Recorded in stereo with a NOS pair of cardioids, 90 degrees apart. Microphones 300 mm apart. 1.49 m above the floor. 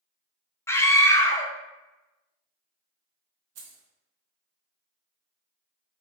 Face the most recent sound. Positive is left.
turn(degrees=-60)